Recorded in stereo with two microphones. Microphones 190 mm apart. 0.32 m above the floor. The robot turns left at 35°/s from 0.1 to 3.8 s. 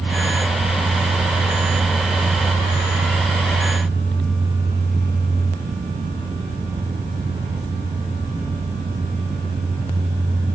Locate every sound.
Only background noise.